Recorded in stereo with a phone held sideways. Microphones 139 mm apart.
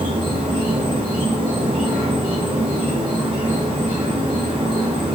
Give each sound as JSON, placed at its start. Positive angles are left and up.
{"t": 0.0, "sound": "an insect", "side_deg": -40, "distance_m": 1.0}